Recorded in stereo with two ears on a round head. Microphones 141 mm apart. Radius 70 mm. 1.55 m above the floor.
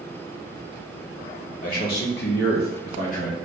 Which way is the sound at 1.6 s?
55° left (ahead or behind).